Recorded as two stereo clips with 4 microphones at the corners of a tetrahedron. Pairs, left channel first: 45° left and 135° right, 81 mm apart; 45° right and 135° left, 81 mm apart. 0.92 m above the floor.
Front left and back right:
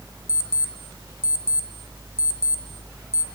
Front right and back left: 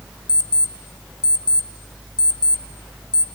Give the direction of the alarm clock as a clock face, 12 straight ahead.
12 o'clock.